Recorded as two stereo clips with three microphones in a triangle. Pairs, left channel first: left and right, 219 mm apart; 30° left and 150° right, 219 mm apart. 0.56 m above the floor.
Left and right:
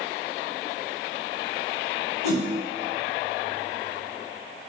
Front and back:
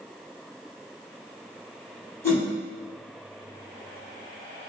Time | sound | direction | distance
2.2 | a whoosh | 110° left | 1.8 m